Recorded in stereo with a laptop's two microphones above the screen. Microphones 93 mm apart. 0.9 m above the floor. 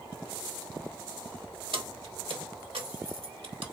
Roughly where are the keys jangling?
Right.